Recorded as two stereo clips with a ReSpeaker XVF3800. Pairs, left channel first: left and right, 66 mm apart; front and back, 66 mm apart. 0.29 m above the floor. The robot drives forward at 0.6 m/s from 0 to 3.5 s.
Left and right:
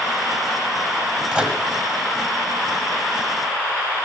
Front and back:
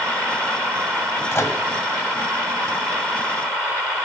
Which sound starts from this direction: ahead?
A microwave, at 1.3 s.